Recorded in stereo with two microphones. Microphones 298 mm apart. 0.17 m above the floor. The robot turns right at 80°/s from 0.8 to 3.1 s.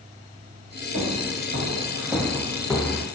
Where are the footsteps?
85° right, 1.5 m; by 3.0 s 15° left (ahead or behind), 0.7 m.